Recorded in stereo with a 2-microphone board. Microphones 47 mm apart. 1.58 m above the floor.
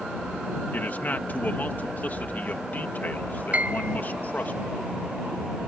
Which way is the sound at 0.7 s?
40° left (ahead or behind).